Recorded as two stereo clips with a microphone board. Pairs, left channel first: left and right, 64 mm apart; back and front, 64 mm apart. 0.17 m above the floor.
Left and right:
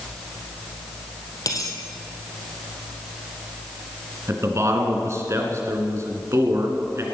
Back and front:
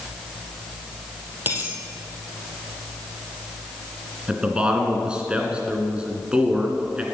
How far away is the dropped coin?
About 2.5 m.